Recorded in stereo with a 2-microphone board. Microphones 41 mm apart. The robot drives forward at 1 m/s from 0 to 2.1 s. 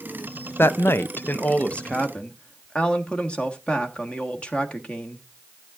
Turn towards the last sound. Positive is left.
turn(degrees=25)  # may be behind; listen again after turning